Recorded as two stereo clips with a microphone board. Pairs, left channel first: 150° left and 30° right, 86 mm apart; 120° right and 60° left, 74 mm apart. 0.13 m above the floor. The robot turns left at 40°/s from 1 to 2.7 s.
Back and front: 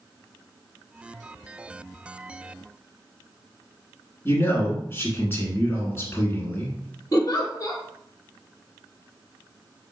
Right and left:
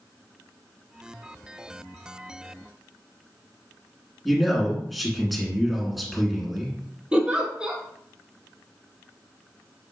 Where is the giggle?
135° left, 1.0 m.